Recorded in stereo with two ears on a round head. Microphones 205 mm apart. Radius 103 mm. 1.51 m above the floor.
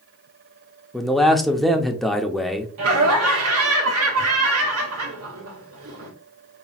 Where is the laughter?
70° right (ahead or behind), 1.5 m.